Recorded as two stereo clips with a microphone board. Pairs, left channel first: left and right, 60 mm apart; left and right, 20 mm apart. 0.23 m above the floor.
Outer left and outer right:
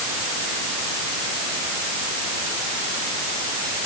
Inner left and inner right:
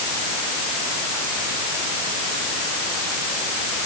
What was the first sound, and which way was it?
Only background noise.